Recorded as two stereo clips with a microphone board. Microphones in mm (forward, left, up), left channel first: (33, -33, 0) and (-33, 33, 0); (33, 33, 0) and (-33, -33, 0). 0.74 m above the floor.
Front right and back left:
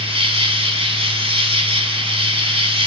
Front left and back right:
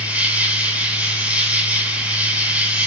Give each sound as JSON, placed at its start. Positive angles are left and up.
{"t": 0.0, "sound": "an insect", "azimuth_deg": 150, "distance_m": 3.0}